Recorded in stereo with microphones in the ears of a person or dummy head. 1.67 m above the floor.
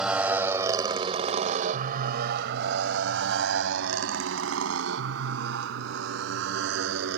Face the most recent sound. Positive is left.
turn(degrees=-70)  # may be behind; listen again after turning